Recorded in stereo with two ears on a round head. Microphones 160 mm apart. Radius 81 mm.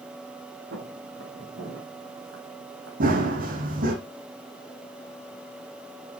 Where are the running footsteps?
50° right (ahead or behind), 1.7 m.